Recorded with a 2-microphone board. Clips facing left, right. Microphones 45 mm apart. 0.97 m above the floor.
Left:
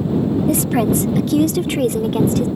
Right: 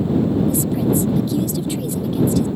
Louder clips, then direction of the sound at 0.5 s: Left 2 dB; 75° left (ahead or behind).